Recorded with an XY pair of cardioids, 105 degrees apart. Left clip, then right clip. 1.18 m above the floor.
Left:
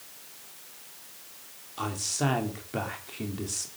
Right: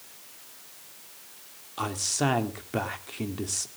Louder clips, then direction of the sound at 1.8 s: Right 2 dB; 25° right.